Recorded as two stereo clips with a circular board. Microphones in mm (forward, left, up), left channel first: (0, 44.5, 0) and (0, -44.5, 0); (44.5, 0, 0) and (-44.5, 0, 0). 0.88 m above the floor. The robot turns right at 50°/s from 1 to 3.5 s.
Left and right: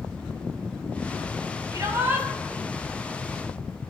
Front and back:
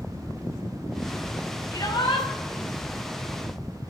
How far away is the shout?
About 5.5 m.